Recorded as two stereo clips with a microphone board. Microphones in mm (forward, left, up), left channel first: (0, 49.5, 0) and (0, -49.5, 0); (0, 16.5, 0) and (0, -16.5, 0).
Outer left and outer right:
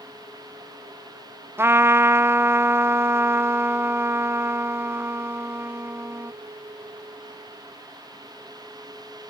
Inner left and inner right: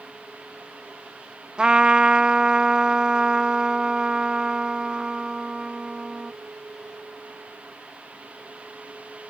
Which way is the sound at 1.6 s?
25° right (ahead or behind).